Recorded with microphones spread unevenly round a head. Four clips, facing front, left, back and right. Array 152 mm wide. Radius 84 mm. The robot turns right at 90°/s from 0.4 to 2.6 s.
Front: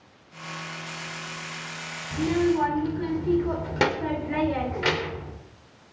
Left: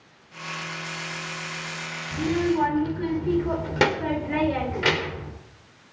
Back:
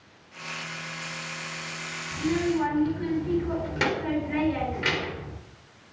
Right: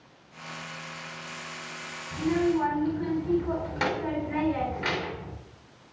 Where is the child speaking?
25° left, 4.5 m; by 5.3 s 70° left, 4.5 m.